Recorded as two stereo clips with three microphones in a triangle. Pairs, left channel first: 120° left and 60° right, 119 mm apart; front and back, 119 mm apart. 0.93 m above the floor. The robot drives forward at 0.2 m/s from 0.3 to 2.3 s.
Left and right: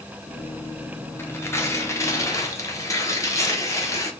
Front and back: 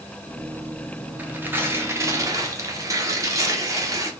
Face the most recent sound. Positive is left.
turn(degrees=155)